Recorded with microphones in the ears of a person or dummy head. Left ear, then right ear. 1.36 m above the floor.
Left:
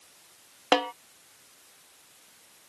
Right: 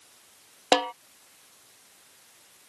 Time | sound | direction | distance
0.7 | a snare drum | 20° right (ahead or behind) | ?